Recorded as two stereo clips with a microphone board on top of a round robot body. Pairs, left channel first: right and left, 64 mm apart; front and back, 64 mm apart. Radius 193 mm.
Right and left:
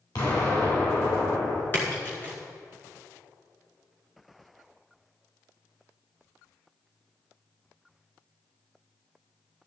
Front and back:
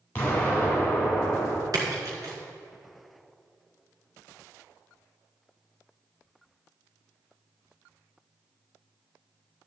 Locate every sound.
0.1 s an explosion: 65° right, 3.5 m
1.7 s a splash: 150° right, 2 m